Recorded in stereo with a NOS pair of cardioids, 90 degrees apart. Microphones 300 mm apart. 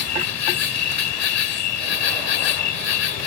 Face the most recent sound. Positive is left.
turn(degrees=60)